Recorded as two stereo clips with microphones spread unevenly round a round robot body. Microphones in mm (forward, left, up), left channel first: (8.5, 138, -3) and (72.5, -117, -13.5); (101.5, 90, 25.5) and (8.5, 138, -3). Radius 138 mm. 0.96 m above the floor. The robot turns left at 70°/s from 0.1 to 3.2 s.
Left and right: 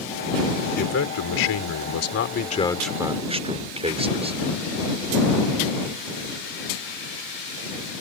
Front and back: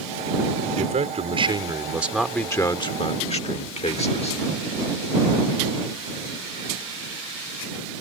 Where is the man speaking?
165° left; by 4.4 s 10° right.